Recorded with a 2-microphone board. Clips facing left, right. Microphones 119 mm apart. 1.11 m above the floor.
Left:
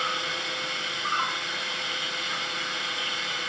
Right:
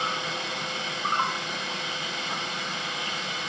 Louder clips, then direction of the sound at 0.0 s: Right 1 dB; 35° right (ahead or behind).